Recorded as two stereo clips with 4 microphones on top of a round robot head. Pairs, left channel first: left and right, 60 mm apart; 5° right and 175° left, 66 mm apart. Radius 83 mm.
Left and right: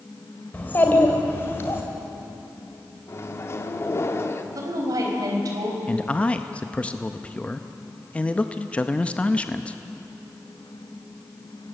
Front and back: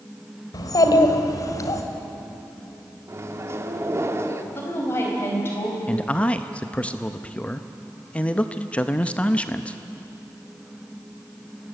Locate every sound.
0.5 s a child speaking: 20° left, 2.5 m; by 1.8 s 35° left, 3 m
3.1 s a microwave: 130° left, 1.7 m
4.5 s a woman speaking: 65° right, 4 m
5.9 s a man speaking: 45° left, 0.7 m